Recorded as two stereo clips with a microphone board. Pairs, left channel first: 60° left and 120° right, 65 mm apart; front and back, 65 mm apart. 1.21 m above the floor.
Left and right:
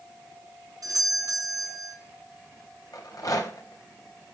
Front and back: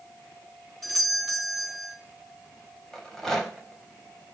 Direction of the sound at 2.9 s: 85° left.